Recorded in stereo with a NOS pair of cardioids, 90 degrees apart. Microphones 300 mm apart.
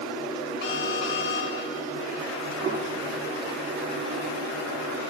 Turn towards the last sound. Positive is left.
turn(degrees=-40)